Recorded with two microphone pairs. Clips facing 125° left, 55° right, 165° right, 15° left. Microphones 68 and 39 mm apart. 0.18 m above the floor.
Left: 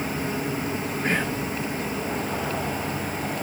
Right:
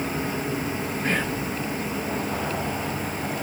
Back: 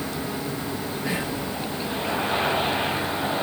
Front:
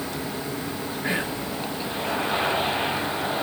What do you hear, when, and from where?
1.0 s whispering: 40° left, 2.5 m